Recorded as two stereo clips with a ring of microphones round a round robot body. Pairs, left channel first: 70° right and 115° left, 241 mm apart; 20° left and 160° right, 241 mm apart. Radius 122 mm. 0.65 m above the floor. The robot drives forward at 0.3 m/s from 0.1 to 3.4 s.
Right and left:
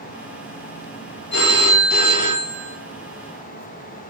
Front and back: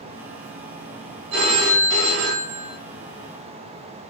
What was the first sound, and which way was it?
A phone ringing, 115° right.